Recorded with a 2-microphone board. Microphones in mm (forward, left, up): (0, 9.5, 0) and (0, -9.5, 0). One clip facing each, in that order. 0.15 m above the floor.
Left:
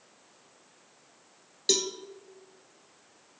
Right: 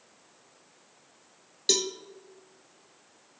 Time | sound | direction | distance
1.7 | a cowbell | 5° right (ahead or behind) | 0.7 m